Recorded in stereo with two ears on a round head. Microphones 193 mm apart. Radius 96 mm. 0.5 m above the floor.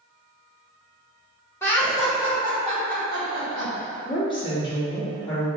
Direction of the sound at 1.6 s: 10° left (ahead or behind).